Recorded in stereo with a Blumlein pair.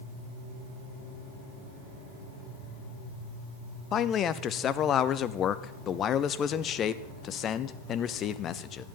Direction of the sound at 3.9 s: 25° left.